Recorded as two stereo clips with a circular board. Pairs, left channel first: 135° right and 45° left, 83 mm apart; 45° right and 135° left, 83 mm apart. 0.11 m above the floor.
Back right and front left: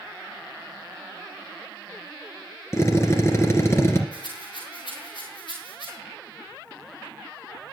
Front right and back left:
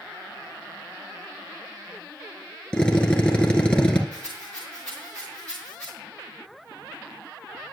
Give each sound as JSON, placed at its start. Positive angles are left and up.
{"t": 2.7, "sound": "a drill", "azimuth_deg": -120, "distance_m": 1.9}
{"t": 4.1, "sound": "a rattle", "azimuth_deg": -125, "distance_m": 5.5}